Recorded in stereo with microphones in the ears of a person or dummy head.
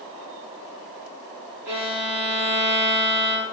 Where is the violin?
50° right (ahead or behind), 0.9 m.